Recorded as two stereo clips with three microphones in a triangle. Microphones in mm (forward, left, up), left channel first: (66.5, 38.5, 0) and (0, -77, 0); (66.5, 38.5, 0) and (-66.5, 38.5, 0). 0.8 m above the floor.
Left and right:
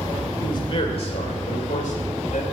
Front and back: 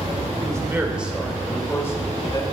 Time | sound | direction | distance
0.4 | a man speaking | 120° left | 2.5 m